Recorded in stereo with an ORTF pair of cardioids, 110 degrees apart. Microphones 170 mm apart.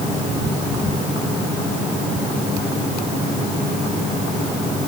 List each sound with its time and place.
Only background noise.